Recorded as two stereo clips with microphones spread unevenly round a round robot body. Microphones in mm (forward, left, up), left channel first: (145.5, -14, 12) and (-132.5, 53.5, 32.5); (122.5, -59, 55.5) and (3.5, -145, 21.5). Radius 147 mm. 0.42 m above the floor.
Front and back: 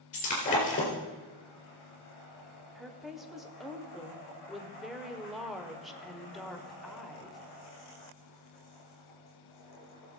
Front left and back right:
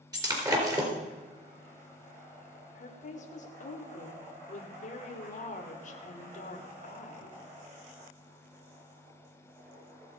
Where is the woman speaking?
75° left, 1.5 m.